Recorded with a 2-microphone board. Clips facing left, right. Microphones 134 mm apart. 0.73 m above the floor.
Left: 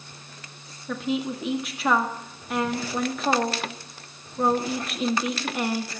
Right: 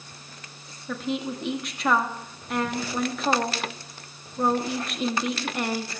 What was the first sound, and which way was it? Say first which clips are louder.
A woman speaking: left 2 dB; centre (ahead or behind).